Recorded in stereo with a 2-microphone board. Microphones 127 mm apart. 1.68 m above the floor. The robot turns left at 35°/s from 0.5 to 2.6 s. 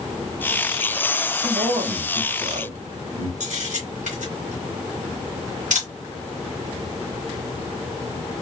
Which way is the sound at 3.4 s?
80° right.